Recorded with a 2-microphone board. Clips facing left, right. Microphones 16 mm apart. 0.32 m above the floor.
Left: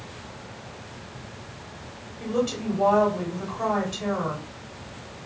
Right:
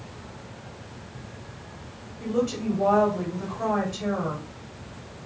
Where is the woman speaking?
40° left (ahead or behind), 1.5 m.